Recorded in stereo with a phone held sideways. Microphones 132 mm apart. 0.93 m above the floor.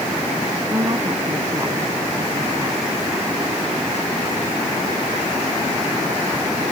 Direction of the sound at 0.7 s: 30° right (ahead or behind).